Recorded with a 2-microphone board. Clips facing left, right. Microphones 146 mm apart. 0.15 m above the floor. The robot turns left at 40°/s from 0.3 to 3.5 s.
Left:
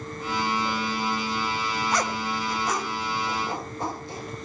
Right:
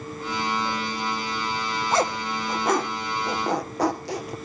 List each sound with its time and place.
1.9 s a zipper: 25° right (ahead or behind), 2 m; by 4.3 s 85° right, 2 m